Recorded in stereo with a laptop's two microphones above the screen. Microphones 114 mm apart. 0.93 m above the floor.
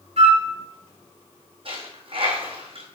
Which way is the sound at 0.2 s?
70° right (ahead or behind).